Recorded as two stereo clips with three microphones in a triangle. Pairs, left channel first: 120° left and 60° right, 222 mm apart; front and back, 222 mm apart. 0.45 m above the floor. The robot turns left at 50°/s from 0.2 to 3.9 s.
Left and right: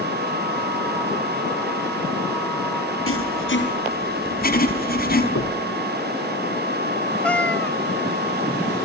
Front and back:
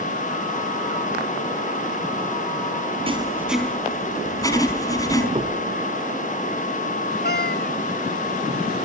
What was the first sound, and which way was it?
Writing, 115° left.